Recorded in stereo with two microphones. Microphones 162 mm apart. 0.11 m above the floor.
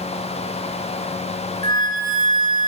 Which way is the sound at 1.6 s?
30° left (ahead or behind).